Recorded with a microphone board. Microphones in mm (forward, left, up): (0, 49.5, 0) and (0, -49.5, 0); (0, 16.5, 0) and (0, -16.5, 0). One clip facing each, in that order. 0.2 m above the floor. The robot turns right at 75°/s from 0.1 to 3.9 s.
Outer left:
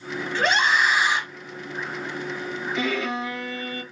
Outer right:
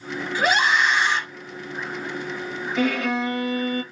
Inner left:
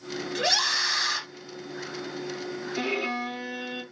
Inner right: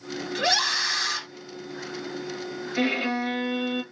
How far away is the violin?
About 3 m.